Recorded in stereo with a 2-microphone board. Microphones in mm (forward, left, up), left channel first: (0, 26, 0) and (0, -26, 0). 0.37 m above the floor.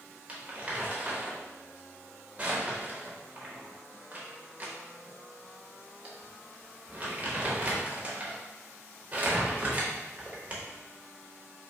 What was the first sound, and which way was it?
Crumpling, 30° right (ahead or behind).